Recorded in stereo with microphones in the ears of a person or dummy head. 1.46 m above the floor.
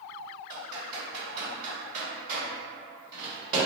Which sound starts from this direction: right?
Typing on a keyboard, at 0.5 s.